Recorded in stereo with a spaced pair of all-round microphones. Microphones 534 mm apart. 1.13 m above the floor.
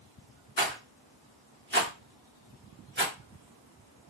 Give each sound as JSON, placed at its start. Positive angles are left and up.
{"t": 0.6, "sound": "a rattle", "side_deg": -20, "distance_m": 1.5}